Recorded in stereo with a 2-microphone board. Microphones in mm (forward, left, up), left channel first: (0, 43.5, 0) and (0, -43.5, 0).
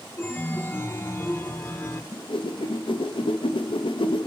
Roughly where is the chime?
Left.